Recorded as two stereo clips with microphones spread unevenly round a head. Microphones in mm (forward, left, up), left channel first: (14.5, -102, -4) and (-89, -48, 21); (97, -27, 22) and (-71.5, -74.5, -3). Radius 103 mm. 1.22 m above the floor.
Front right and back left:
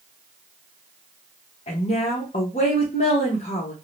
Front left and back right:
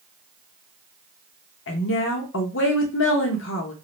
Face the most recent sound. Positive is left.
turn(degrees=15)